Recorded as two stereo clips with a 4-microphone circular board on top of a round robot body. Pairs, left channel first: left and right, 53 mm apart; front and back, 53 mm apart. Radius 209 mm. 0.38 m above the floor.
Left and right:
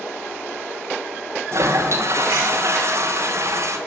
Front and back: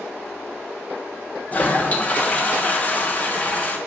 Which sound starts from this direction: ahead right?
A toilet flushing, at 1.5 s.